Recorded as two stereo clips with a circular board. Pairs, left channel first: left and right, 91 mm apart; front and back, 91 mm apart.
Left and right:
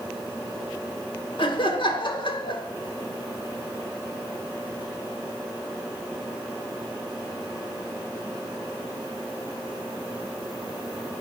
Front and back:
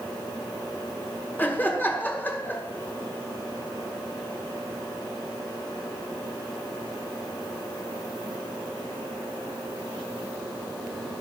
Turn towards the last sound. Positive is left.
turn(degrees=70)